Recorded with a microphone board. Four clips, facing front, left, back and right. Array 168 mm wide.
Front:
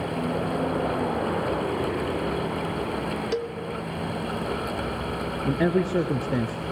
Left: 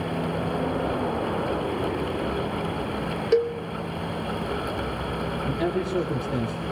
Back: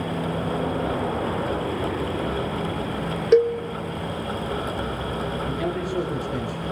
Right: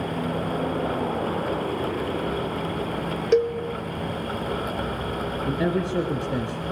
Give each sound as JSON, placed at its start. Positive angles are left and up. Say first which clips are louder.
{"t": 3.3, "sound": "a cowbell", "louder": "right 2 dB, back 18 dB", "azimuth_deg": -170, "distance_m": 0.8}
{"t": 5.5, "sound": "a man speaking", "louder": "right 2 dB, front 3 dB", "azimuth_deg": -25, "distance_m": 2.5}